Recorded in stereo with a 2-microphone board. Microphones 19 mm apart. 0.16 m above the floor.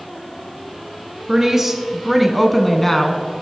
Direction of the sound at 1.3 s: 30° right (ahead or behind).